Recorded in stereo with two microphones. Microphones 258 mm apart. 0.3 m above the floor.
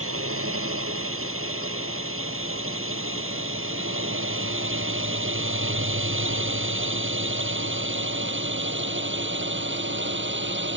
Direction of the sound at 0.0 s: 60° right (ahead or behind).